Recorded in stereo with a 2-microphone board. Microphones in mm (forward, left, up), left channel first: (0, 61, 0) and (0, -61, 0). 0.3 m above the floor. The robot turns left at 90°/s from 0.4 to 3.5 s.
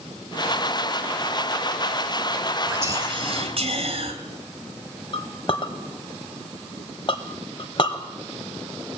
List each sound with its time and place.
2.7 s whispering: 10° right, 1.9 m; by 4.1 s 85° right, 1.9 m
5.1 s a clink: 45° left (ahead or behind), 0.9 m